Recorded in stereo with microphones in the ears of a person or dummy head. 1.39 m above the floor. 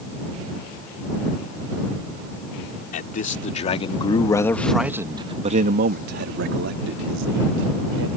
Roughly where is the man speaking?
Left.